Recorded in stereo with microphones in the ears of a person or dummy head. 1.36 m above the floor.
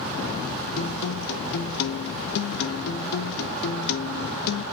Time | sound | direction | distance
0.8 | a guitar | 55° left (ahead or behind) | 0.8 m